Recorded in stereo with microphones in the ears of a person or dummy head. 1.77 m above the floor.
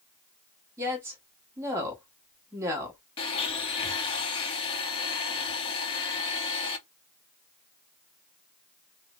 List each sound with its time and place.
0.8 s a woman speaking: 15° right (ahead or behind), 1.1 m
3.2 s a blender: 25° left (ahead or behind), 0.8 m